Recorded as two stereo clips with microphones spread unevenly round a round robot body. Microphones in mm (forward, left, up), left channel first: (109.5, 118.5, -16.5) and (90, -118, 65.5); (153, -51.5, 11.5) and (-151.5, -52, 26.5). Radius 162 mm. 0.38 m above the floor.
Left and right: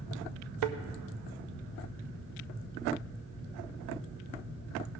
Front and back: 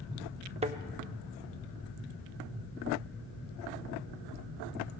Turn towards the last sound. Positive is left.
turn(degrees=-110)